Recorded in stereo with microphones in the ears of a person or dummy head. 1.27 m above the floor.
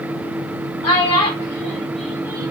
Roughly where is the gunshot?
I don't hear a gunshot.